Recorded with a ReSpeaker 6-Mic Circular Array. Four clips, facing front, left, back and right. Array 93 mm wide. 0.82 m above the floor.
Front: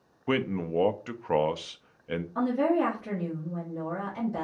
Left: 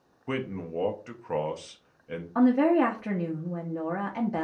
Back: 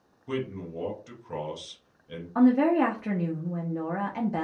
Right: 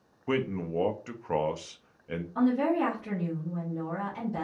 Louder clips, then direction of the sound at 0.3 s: Right 3 dB, front 5 dB; 5° right.